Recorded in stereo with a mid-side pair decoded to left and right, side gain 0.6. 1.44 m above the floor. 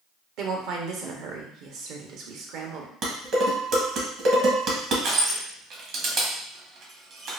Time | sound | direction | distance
0.4 | a woman speaking | 65° right | 1.0 m
3.0 | dishes clattering | 55° right | 1.2 m
5.0 | crushing | 55° right | 1.4 m